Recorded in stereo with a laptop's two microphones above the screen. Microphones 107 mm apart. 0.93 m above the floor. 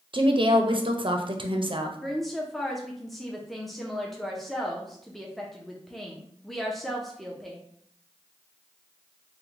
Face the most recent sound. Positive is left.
turn(degrees=0)  # may be behind; listen again after turning